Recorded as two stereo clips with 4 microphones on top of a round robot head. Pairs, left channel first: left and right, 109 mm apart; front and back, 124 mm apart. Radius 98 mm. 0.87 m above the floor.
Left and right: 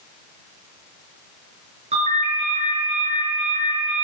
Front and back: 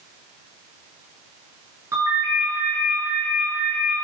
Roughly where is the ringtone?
Right.